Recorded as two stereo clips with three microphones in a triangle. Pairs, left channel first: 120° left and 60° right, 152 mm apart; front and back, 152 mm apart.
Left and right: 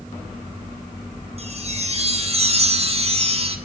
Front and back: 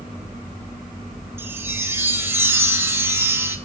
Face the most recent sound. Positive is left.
turn(degrees=-105)